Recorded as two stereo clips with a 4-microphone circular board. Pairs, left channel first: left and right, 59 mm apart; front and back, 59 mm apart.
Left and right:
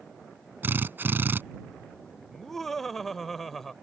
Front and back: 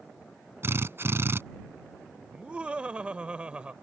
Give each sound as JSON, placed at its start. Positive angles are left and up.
{"t": 0.6, "sound": "a drill", "azimuth_deg": -140}
{"t": 2.3, "sound": "laughter", "azimuth_deg": 170}